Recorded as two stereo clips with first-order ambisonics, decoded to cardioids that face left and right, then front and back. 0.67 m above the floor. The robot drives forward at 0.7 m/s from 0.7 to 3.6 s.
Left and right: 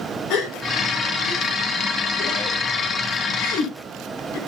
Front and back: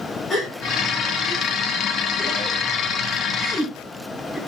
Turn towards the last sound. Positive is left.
turn(degrees=85)